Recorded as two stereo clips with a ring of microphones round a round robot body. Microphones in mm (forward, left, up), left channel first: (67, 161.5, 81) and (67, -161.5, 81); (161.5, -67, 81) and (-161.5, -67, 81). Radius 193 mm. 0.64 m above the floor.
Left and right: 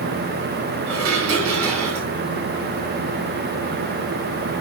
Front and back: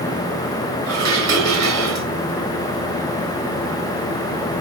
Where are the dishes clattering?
145° right, 4.5 m.